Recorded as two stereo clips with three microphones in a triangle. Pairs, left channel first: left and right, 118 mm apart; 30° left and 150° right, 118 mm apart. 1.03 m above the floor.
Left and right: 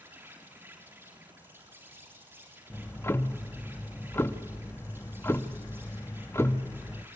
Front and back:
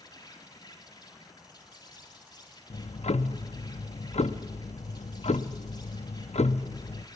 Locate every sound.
0.0 s an insect: 20° right, 3.5 m
2.7 s ticking: 25° left, 0.6 m